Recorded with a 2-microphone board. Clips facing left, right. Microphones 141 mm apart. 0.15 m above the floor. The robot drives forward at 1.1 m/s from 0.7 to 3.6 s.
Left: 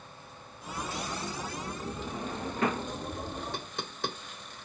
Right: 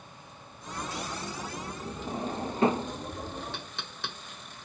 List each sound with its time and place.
2.1 s a drawer: 35° right (ahead or behind); by 2.9 s 25° right (ahead or behind)
3.5 s knocking: 50° left (ahead or behind); by 4.2 s 45° left (ahead or behind)